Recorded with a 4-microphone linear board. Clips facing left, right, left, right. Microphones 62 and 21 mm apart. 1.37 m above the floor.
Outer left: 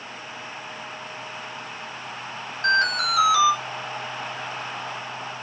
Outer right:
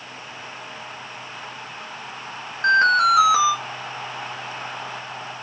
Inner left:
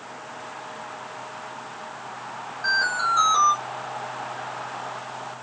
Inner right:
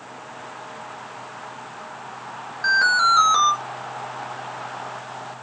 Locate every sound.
2.6 s an alarm: 30° right (ahead or behind), 2.5 m